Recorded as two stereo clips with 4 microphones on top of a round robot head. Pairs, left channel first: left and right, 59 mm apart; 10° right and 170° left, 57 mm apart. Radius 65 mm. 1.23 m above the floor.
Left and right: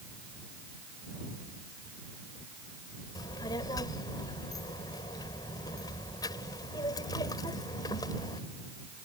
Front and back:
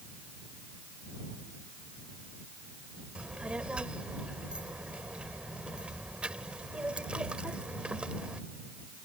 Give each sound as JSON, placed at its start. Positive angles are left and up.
{"t": 3.1, "sound": "a child speaking", "azimuth_deg": 100}